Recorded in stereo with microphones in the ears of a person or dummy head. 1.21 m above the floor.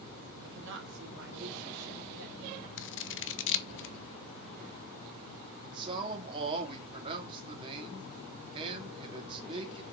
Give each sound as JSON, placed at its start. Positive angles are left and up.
{"t": 0.4, "sound": "a woman speaking", "side_deg": -70, "distance_m": 1.7}
{"t": 2.8, "sound": "scissors", "side_deg": 55, "distance_m": 0.9}
{"t": 5.6, "sound": "a man speaking", "side_deg": -25, "distance_m": 2.5}